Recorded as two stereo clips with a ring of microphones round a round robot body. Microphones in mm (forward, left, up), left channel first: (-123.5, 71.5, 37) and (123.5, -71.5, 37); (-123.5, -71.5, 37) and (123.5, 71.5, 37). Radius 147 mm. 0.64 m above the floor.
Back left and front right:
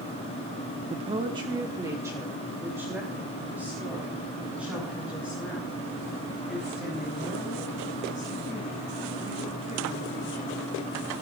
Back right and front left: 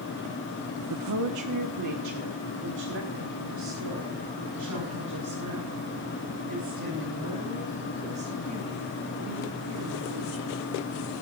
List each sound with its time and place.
0.9 s a woman speaking: 35° left, 1.0 m; by 10.6 s 60° left, 11.5 m